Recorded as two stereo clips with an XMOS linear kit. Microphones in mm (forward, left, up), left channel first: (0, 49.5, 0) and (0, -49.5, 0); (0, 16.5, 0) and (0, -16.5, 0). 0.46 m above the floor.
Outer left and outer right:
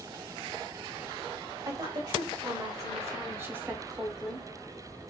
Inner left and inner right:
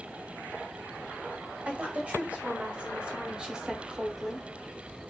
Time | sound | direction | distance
1.6 | a woman speaking | 50° right (ahead or behind) | 1.8 m